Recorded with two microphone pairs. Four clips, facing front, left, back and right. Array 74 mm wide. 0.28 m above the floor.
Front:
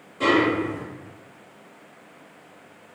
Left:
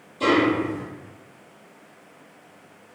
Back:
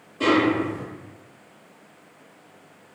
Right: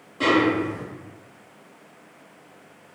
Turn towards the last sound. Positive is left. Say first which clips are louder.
# even, even
turn(degrees=-85)